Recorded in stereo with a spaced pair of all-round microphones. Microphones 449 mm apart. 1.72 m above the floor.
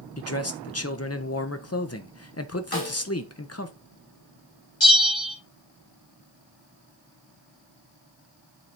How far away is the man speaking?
About 1.0 m.